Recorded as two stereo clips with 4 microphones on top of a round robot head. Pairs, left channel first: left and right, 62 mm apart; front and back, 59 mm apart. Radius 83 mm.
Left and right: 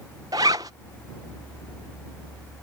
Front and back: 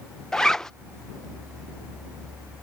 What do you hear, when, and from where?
0.3 s a zipper: 85° right